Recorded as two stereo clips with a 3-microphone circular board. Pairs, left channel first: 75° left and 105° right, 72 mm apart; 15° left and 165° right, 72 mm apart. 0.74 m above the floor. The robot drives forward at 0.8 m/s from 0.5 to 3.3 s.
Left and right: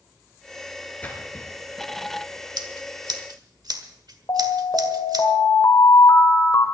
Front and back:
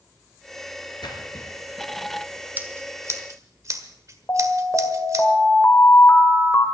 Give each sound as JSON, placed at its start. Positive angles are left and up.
{"t": 1.0, "sound": "a splash", "azimuth_deg": 10, "distance_m": 3.5}
{"t": 2.6, "sound": "scissors", "azimuth_deg": -100, "distance_m": 1.3}
{"t": 4.3, "sound": "an alarm", "azimuth_deg": 60, "distance_m": 2.5}